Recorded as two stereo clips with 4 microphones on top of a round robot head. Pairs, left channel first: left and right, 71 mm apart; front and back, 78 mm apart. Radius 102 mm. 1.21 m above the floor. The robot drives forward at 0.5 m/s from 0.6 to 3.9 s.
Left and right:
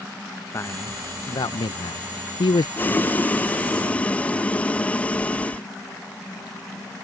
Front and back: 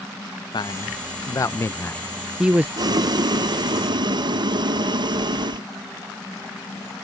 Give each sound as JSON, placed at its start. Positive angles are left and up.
{"t": 0.5, "sound": "a man speaking", "azimuth_deg": 30}
{"t": 2.8, "sound": "boiling", "azimuth_deg": 155}